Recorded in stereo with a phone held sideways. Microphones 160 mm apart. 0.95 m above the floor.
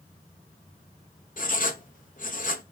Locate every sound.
1.4 s writing: 60° left (ahead or behind), 0.8 m